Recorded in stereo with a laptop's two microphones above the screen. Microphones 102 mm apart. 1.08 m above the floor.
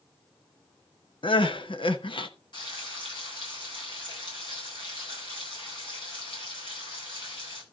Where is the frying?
50° left (ahead or behind), 9 m.